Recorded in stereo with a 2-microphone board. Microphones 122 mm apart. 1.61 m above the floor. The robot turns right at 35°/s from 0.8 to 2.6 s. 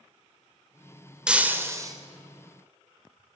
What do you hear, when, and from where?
1.3 s breaking glass: 5° right (ahead or behind), 2.5 m; by 1.9 s 30° right (ahead or behind), 2.5 m